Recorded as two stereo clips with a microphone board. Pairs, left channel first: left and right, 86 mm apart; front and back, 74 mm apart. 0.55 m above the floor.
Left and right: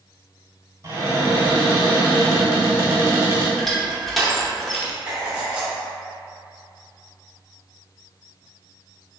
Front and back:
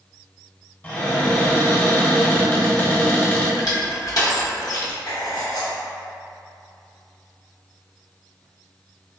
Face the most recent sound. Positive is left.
turn(degrees=-15)